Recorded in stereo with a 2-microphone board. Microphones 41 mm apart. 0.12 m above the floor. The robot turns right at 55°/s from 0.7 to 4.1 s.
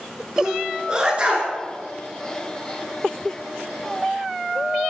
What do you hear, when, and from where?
0.4 s a sneeze: 15° right (ahead or behind), 1.6 m; by 1.5 s 35° right (ahead or behind), 1.6 m